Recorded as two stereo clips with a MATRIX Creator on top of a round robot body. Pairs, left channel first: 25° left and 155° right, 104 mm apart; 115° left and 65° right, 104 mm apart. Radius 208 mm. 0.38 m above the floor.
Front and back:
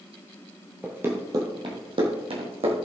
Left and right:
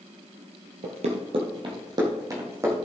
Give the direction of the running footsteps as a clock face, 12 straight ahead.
3 o'clock.